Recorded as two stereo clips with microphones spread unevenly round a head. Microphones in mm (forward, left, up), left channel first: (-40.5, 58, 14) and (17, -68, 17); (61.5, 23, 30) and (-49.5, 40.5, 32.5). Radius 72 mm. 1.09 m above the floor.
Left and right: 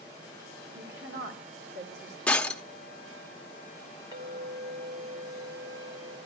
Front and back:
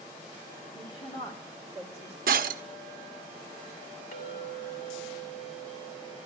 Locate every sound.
0.8 s a woman speaking: 70° right, 3 m; by 2.2 s 85° right, 3 m
2.3 s breaking glass: 165° right, 0.9 m
4.1 s a clink: straight ahead, 2.5 m